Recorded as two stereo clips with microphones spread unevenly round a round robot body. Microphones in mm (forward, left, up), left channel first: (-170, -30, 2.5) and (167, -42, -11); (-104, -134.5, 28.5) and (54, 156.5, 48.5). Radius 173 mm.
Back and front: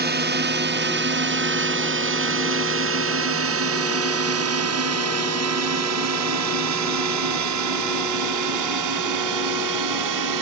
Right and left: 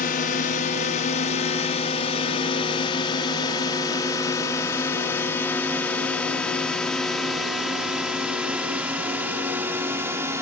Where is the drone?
55° right; by 10.4 s 20° right.